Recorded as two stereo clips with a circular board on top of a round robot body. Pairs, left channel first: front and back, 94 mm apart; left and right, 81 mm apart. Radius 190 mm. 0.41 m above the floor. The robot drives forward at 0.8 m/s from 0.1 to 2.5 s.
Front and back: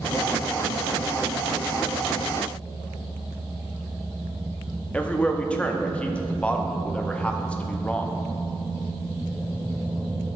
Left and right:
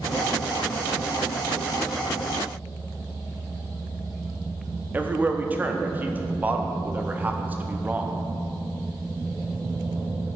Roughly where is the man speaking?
Ahead right.